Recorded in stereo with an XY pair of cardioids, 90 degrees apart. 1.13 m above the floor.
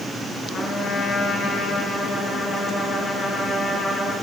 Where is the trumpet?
70° left, 9.5 m.